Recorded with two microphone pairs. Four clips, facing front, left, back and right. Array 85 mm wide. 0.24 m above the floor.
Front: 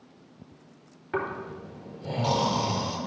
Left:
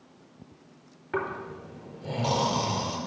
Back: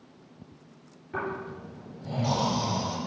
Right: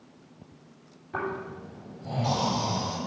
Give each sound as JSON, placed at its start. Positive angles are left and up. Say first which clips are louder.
{"t": 1.1, "sound": "snoring", "louder": "left 1 dB, front 2 dB", "azimuth_deg": 40, "distance_m": 4.5}